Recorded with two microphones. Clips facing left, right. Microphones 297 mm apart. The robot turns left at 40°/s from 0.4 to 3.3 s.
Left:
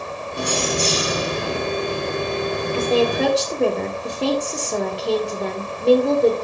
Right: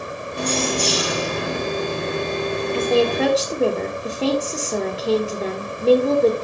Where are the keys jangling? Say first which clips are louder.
Right 1 dB; 170° left, 3 m; by 1.6 s 120° left, 3 m.